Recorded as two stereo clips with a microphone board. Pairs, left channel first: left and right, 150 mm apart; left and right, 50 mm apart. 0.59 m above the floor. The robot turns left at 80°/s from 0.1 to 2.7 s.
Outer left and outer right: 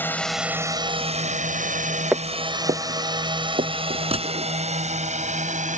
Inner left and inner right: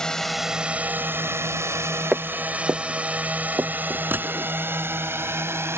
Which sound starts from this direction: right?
A gunshot, at 4.1 s.